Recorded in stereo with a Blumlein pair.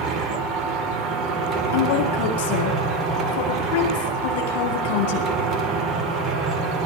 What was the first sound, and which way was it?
A machine running, 25° right.